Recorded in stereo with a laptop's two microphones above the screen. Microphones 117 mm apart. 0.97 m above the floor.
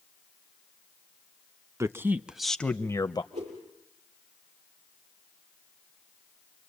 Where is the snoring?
I don't hear snoring.